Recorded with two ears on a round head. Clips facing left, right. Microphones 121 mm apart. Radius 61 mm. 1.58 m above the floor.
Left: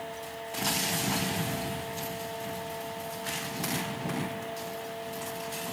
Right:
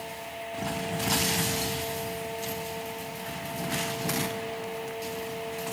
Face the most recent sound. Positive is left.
No sound to turn to.